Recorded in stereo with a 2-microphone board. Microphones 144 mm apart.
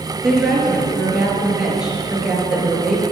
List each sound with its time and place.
0.2 s a woman speaking: 5° right (ahead or behind), 3 m